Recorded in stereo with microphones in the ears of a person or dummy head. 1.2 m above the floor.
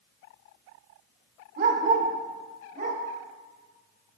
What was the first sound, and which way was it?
A dog barking, 50° right (ahead or behind).